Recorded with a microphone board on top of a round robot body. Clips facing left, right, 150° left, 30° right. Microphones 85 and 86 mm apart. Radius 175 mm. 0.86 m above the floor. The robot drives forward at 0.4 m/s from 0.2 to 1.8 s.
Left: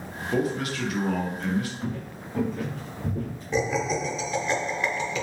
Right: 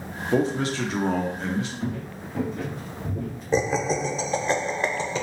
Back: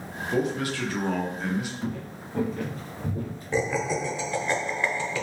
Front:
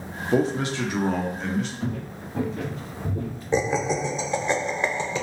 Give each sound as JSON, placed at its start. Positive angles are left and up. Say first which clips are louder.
{"t": 0.3, "sound": "a man speaking", "louder": "right 3 dB, front 4 dB", "azimuth_deg": -45, "distance_m": 0.7}
{"t": 1.8, "sound": "footsteps", "louder": "right 2 dB, front 2 dB", "azimuth_deg": -75, "distance_m": 0.9}
{"t": 3.5, "sound": "laughter", "louder": "right 2 dB, front 3 dB", "azimuth_deg": -80, "distance_m": 0.7}